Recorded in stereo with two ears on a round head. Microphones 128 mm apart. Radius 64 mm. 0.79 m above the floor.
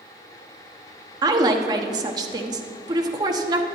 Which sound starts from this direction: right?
A woman speaking, at 1.2 s.